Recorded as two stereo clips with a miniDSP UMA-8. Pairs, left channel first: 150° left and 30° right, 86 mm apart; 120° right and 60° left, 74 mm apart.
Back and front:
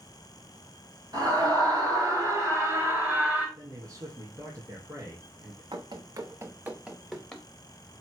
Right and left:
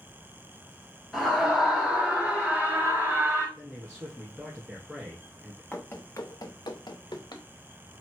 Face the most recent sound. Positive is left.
turn(degrees=-130)